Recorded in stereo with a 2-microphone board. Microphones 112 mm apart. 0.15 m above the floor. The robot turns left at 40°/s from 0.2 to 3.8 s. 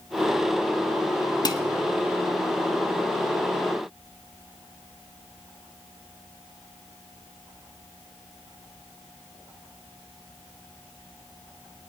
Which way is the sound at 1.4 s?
40° left (ahead or behind).